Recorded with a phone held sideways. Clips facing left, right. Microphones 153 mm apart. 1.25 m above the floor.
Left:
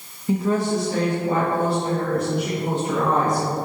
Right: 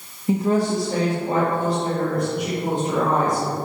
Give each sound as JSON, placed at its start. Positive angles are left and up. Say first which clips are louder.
{"t": 0.3, "sound": "a woman speaking", "louder": "right 1 dB", "side_deg": -20, "distance_m": 0.9}